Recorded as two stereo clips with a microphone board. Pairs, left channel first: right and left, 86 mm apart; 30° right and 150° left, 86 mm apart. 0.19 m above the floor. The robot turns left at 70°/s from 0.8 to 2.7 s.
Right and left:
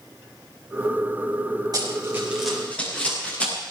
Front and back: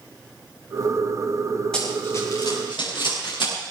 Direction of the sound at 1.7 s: 50° left.